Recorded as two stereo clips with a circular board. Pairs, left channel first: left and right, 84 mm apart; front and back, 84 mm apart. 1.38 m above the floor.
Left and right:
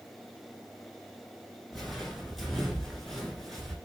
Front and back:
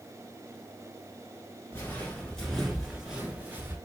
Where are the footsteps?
5° left, 1.4 m; by 3.8 s 170° left, 1.4 m.